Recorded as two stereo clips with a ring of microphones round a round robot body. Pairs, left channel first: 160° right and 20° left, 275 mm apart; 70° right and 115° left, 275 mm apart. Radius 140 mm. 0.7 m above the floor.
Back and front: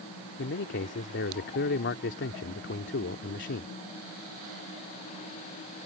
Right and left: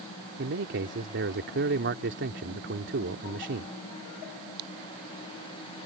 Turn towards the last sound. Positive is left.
turn(degrees=155)